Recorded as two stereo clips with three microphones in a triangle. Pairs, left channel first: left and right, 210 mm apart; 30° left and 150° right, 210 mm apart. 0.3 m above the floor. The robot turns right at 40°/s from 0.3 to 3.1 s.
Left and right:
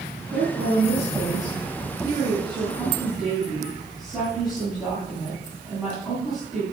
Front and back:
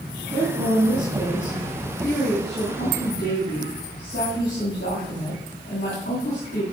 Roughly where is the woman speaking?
Behind right.